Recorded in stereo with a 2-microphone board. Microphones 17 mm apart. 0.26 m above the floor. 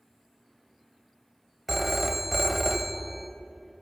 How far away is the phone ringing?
About 0.6 m.